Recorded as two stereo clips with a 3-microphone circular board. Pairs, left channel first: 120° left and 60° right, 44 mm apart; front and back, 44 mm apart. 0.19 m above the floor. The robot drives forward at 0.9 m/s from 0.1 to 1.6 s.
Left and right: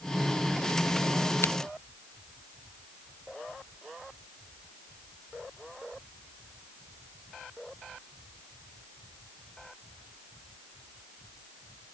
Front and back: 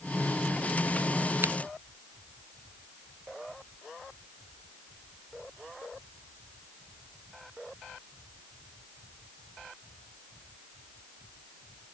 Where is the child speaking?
I don't hear a child speaking.